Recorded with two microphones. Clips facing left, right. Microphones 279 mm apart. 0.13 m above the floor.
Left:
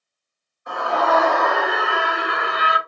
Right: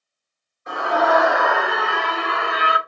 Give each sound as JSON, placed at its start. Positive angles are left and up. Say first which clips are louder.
{"t": 0.7, "sound": "a scream", "louder": "right 2 dB", "side_deg": -25, "distance_m": 1.8}